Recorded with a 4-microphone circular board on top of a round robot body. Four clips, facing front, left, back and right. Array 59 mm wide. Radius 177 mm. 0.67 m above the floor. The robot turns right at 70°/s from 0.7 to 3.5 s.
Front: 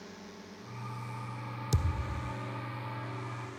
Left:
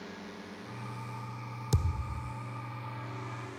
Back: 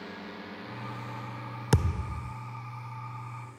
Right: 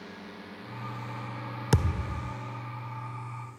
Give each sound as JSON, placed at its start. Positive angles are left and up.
{"t": 0.0, "sound": "a drone", "azimuth_deg": -170}
{"t": 1.7, "sound": "a thud", "azimuth_deg": -140}